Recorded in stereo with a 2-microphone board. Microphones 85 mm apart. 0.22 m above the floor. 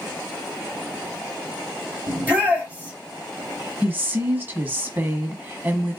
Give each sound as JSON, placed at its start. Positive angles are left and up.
{"t": 2.1, "sound": "a shout", "side_deg": -20, "distance_m": 4.0}
{"t": 3.8, "sound": "a woman speaking", "side_deg": -25, "distance_m": 1.3}